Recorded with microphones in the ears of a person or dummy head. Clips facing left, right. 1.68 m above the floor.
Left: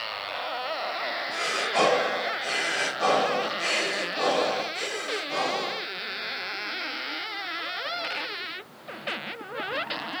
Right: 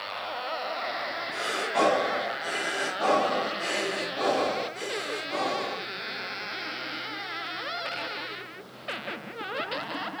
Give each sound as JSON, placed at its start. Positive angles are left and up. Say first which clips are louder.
{"t": 1.3, "sound": "breathing", "louder": "even", "side_deg": 50, "distance_m": 1.3}